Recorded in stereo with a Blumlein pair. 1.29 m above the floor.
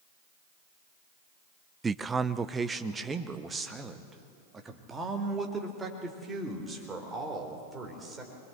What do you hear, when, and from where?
1.8 s a man speaking: 15° right, 0.5 m